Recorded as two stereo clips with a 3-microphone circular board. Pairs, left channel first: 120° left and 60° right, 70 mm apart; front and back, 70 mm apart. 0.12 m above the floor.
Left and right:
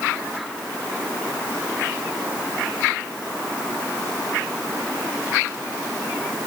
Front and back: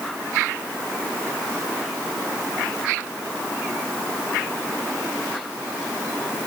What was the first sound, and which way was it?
Only background noise.